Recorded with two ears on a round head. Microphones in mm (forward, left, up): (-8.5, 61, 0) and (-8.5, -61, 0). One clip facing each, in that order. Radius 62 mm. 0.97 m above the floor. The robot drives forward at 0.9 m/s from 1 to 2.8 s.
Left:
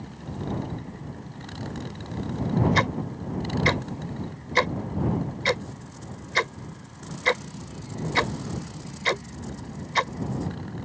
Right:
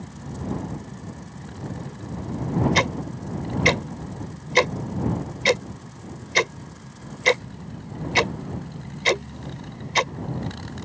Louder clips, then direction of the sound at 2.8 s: Right 1 dB; 25° right (ahead or behind).